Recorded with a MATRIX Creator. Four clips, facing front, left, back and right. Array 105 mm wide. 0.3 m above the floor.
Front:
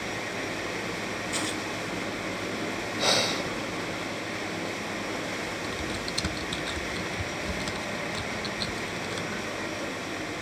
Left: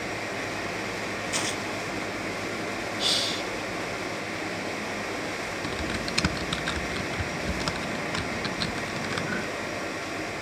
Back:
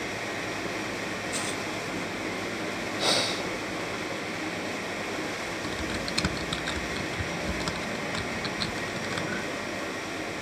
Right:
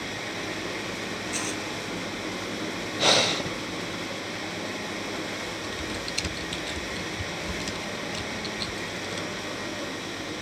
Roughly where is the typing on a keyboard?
Left.